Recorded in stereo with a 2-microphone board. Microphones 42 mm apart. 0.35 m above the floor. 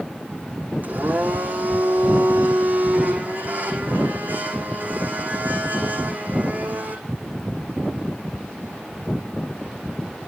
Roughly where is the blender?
Right.